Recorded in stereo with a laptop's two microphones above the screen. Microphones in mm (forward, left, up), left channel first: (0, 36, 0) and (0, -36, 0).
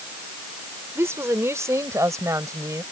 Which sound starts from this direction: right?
A woman speaking, at 0.9 s.